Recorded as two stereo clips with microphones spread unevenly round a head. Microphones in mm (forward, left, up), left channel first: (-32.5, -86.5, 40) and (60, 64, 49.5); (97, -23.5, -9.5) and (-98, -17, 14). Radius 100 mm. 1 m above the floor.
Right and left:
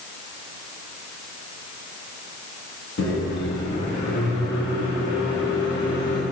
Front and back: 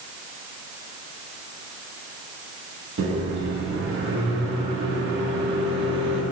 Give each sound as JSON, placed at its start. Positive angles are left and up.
{"t": 3.0, "sound": "a microwave", "azimuth_deg": -150, "distance_m": 1.4}